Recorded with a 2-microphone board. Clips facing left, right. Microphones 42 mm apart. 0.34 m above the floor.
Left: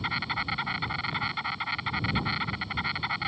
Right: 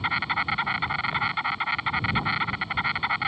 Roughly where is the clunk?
No clunk in this recording.